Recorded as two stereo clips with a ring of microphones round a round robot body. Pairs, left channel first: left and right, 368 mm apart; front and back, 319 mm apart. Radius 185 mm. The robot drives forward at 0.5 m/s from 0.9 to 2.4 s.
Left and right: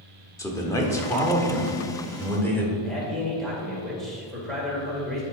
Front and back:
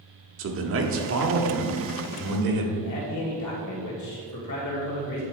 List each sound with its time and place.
0.4 s a man speaking: 165° left, 1.0 m; by 2.7 s 175° left, 1.5 m
2.8 s a man speaking: straight ahead, 2 m